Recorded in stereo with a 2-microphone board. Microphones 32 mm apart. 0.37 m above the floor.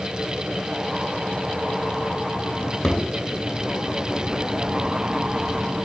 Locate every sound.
2.6 s a drawer: 25° left (ahead or behind), 2 m